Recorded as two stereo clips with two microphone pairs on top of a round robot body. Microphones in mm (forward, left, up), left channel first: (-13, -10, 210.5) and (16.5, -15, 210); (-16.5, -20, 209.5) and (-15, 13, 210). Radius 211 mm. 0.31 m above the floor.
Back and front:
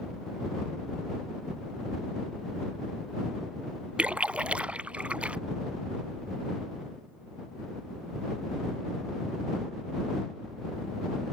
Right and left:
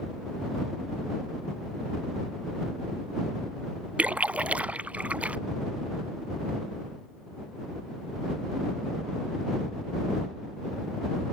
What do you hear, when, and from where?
4.0 s a splash: 40° left